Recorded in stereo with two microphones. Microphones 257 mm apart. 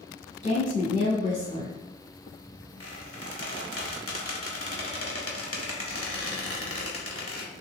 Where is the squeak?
60° left (ahead or behind), 0.8 m.